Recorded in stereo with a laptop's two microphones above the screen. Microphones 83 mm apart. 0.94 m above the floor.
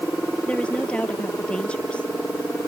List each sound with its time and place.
0.5 s a woman speaking: 15° left (ahead or behind)